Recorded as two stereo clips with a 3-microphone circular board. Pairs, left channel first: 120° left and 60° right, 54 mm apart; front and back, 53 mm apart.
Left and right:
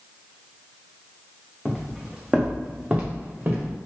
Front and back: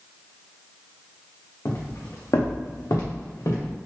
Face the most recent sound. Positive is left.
turn(degrees=-5)